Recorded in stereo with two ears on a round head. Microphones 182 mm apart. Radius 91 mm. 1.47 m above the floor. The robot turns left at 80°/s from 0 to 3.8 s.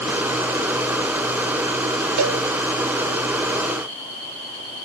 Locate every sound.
2.2 s a cowbell: 70° right (ahead or behind), 0.6 m; by 2.4 s 55° right (ahead or behind), 0.6 m